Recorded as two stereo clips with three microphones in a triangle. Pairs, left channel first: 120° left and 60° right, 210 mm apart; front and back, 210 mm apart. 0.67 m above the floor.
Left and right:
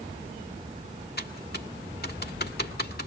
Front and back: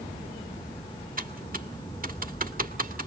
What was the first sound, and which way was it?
Typing on a keyboard, 145° left.